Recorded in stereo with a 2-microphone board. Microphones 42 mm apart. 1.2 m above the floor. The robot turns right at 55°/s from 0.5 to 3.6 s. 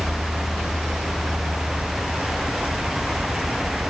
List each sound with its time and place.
0.0 s an insect: 140° left, 0.7 m; by 3.9 s 50° right, 0.7 m